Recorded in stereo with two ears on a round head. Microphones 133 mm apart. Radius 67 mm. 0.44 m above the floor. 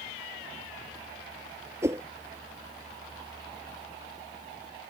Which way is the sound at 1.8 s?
20° right (ahead or behind).